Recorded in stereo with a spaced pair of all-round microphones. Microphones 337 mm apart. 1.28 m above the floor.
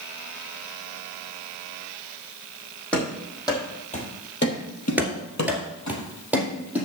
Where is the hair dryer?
No hair dryer in this recording.